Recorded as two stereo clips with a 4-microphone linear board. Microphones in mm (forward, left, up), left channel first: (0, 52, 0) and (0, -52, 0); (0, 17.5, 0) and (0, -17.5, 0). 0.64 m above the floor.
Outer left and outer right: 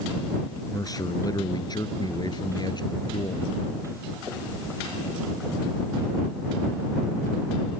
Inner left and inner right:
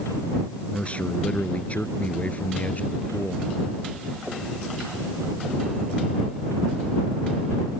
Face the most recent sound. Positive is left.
turn(degrees=45)  # may be behind; listen again after turning